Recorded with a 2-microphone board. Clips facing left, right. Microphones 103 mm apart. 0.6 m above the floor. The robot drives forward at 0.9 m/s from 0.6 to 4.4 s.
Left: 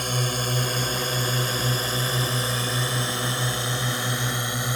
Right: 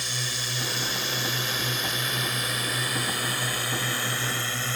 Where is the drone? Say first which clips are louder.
Left 8 dB; 50° left (ahead or behind); by 4.8 s 20° left (ahead or behind).